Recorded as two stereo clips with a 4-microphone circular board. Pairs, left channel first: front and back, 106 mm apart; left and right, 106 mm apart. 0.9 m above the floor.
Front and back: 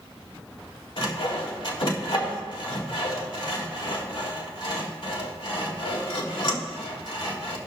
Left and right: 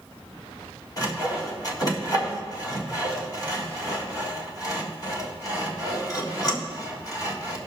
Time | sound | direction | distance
1.0 | sawing | 35° left | 1.8 m